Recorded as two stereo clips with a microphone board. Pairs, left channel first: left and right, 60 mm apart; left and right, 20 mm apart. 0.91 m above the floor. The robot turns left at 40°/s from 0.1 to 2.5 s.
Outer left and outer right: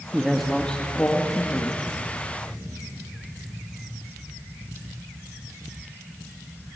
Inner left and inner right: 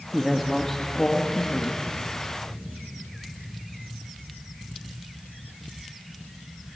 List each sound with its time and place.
0.1 s a man speaking: 175° right, 1.8 m; by 1.8 s 120° left, 1.8 m